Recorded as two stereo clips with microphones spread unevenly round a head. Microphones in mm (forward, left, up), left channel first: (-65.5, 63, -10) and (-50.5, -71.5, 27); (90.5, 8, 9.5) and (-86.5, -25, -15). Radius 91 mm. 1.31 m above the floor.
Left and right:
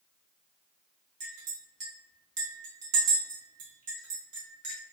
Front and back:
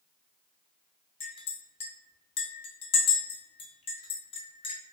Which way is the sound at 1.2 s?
45° right.